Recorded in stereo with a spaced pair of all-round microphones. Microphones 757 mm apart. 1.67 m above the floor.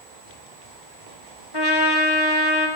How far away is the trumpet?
About 1.2 m.